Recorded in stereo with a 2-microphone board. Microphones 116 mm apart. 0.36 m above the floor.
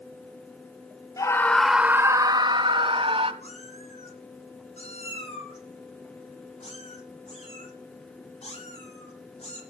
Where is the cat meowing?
60° left (ahead or behind), 8.5 m.